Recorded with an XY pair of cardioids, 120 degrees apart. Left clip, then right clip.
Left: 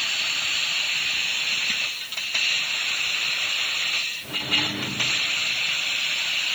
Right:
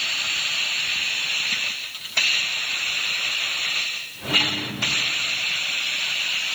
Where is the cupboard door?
I don't hear a cupboard door.